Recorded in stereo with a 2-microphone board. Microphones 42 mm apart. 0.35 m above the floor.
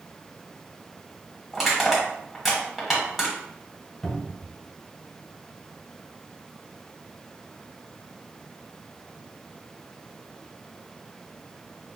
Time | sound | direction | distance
1.5 | crushing | 5° right (ahead or behind) | 1.3 m
4.0 | a cupboard door | 5° left (ahead or behind) | 1.0 m